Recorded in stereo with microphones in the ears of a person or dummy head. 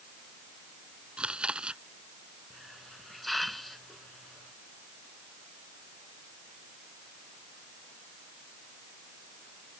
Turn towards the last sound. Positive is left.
turn(degrees=0)  # may be behind; listen again after turning